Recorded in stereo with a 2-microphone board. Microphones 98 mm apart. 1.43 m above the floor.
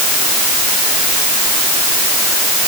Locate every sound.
Only background noise.